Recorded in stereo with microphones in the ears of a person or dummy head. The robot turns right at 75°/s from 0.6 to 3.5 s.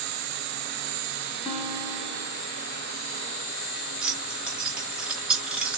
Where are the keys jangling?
5° right (ahead or behind), 0.6 m.